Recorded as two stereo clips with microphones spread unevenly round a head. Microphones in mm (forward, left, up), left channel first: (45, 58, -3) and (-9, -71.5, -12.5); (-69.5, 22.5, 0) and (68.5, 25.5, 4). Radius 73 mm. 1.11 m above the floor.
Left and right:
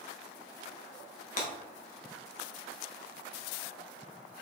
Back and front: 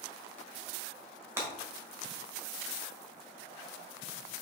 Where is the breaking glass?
70° left, 1.4 m.